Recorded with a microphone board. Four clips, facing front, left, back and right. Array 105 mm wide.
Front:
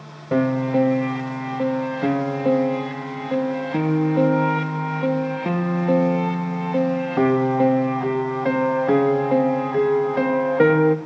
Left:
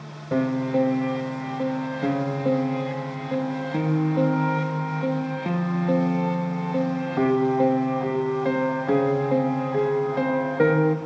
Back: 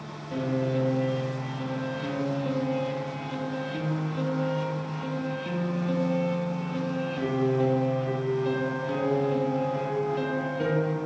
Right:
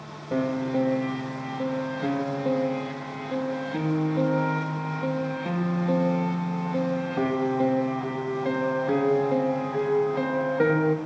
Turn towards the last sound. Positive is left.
turn(degrees=5)